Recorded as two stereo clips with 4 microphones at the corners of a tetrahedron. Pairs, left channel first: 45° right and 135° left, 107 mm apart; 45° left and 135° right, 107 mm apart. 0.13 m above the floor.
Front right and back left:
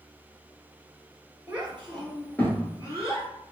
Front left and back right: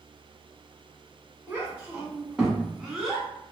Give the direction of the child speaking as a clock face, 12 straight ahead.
6 o'clock.